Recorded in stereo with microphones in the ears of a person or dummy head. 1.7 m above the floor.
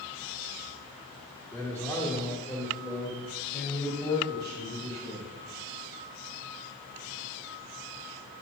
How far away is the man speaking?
About 2 m.